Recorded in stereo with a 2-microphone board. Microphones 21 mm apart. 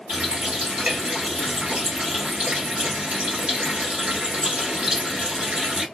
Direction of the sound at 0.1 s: 65° right (ahead or behind).